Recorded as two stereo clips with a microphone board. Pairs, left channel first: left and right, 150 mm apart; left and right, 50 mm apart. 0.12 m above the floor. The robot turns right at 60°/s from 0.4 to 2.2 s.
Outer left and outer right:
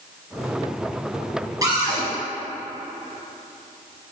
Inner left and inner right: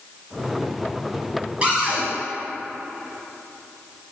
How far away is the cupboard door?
About 1.8 m.